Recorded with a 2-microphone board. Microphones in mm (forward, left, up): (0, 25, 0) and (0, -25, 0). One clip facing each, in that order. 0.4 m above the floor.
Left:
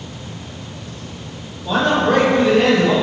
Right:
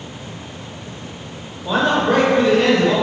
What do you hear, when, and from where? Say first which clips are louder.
1.6 s a man speaking: left 1 dB; 20° right (ahead or behind), 1.0 m; by 2.9 s 15° left (ahead or behind), 1.6 m